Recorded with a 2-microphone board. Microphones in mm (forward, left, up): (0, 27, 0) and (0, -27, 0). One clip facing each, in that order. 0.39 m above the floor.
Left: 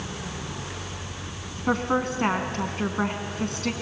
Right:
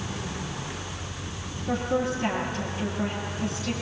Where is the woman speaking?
65° left (ahead or behind), 3 m.